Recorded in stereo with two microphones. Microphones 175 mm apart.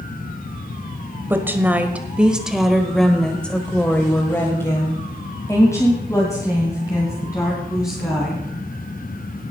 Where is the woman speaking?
10° right (ahead or behind), 1.3 m; by 8.4 s 20° left (ahead or behind), 3 m.